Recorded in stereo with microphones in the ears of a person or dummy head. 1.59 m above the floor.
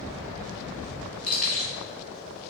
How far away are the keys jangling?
About 1.5 m.